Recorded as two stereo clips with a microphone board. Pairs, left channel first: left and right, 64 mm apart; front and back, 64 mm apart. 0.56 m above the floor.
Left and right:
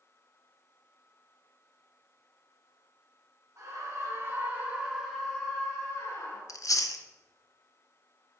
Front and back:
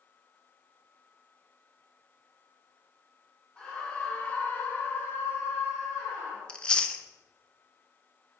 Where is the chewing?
75° left, 0.5 m.